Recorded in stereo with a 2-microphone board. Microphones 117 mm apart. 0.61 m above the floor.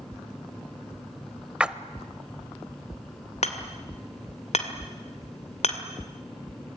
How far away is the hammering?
About 2 m.